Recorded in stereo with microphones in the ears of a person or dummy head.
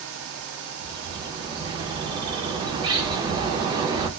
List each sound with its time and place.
0.8 s a bird: 25° right (ahead or behind), 0.7 m